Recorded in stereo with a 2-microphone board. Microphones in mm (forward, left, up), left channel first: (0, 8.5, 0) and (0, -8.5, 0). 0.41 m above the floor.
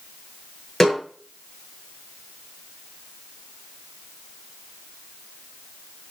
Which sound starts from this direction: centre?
A snare drum, at 0.8 s.